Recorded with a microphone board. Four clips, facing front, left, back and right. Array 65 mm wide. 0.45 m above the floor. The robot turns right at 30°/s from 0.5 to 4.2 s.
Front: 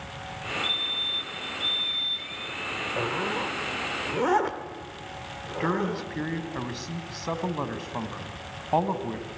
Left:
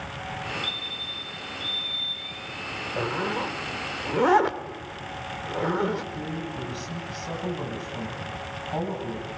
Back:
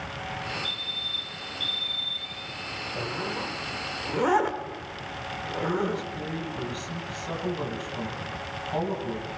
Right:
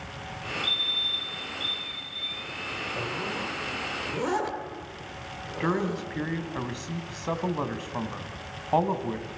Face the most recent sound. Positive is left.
turn(degrees=-50)